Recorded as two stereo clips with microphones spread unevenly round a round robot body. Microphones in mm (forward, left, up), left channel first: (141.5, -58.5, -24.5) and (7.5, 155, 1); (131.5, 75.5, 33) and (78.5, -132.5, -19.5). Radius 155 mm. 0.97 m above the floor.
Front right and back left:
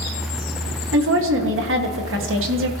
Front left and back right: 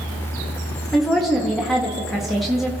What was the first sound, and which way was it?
A woman speaking, 170° left.